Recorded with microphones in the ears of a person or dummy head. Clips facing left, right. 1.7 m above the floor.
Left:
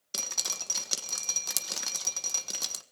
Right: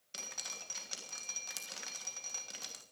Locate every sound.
0.1 s dripping: 70° left (ahead or behind), 1.5 m